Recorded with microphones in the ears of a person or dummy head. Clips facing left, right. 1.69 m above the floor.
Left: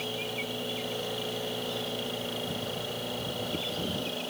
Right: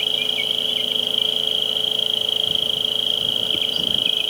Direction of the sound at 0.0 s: 45° right (ahead or behind).